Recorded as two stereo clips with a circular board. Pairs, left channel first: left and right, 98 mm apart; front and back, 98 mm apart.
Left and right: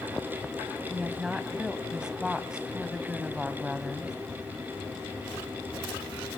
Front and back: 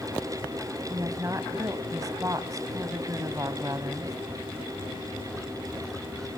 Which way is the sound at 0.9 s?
165° right.